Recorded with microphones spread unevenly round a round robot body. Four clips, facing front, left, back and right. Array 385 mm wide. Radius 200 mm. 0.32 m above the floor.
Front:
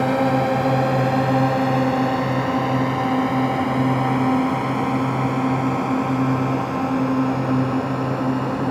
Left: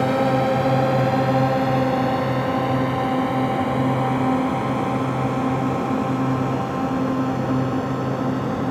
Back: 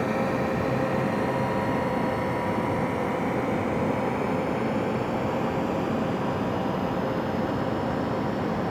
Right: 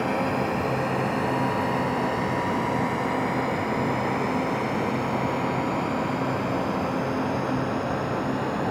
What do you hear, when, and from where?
0.0 s a drone: 40° left; by 8.7 s 20° left